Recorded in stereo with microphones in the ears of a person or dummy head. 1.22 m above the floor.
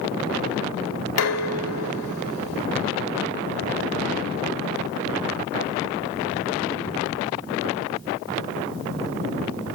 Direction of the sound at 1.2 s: 80° left.